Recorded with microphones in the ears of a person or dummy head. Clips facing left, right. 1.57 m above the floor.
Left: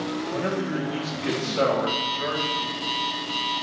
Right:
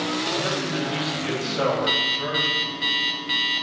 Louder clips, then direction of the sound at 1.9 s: Even; 25° right (ahead or behind).